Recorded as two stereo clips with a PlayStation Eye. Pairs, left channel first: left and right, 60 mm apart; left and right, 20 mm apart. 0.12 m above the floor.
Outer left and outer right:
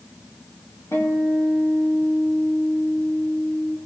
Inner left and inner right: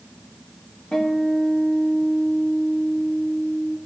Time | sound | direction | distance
0.9 | a guitar | 55° left (ahead or behind) | 4 m